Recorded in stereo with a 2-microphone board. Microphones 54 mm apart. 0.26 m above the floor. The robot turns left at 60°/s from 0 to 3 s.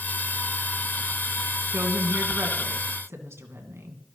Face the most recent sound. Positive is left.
turn(degrees=-110)